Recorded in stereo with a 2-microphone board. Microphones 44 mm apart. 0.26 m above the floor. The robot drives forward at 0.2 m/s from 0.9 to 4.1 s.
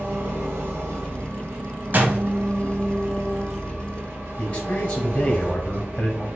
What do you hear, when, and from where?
0.0 s an engine running: 75° right (ahead or behind), 2.5 m; by 6.4 s 65° right (ahead or behind), 2.5 m
1.9 s a door slam: 45° right (ahead or behind), 1.2 m
4.4 s a man speaking: 25° left (ahead or behind), 1.1 m